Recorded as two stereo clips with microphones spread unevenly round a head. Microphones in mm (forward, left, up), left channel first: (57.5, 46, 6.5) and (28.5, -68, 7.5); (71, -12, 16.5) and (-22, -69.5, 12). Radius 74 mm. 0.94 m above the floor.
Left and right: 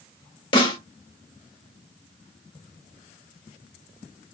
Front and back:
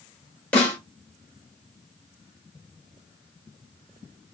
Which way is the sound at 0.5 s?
105° left.